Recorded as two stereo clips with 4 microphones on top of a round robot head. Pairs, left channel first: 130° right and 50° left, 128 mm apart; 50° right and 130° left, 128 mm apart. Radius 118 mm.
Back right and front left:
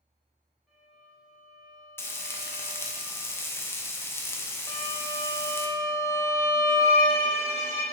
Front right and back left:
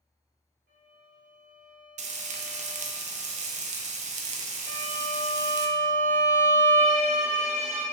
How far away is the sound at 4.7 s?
About 0.9 m.